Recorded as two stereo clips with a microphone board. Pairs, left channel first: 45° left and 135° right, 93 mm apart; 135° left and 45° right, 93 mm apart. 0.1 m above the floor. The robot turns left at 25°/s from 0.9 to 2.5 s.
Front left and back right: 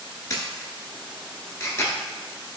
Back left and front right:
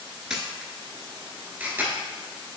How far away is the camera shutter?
About 0.6 m.